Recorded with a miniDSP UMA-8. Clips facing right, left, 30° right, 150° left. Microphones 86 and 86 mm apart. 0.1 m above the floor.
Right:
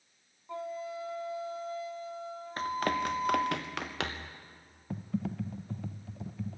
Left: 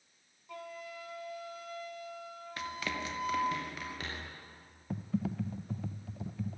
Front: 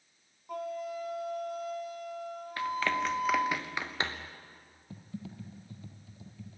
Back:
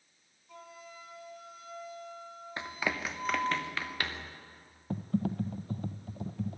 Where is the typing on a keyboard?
Straight behind, 0.8 m.